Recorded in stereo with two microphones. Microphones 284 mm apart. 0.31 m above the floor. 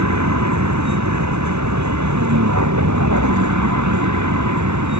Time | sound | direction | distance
0.0 | a vehicle | 75° right (ahead or behind) | ?